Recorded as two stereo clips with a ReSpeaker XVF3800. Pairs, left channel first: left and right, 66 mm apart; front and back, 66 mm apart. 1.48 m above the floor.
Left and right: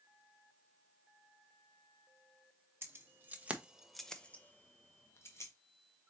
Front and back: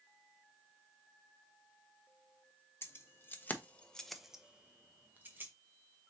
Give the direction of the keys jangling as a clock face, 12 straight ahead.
1 o'clock.